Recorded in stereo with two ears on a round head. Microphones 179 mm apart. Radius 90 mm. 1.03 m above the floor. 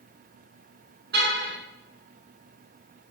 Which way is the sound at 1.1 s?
50° right (ahead or behind).